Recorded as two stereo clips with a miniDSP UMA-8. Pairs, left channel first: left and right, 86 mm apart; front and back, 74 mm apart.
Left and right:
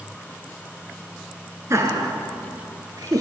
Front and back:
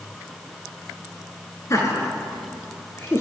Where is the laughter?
40° right, 3 m; by 3.2 s 55° right, 3.5 m.